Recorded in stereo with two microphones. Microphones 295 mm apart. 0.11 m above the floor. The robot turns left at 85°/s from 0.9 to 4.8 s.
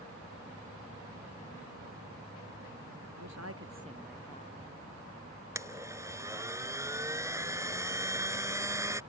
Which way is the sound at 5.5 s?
10° right (ahead or behind).